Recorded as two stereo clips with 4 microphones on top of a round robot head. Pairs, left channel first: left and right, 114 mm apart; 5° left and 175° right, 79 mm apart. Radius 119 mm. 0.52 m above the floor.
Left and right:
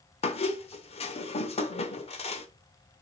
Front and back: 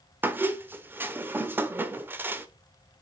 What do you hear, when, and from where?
0.2 s a squeak: 120° left, 1.1 m